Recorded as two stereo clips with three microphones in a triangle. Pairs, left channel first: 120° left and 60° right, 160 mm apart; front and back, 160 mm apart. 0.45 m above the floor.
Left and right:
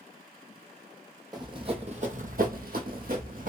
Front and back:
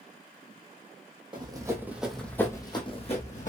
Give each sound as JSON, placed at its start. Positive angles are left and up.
{"t": 1.3, "sound": "running footsteps", "azimuth_deg": -125, "distance_m": 1.0}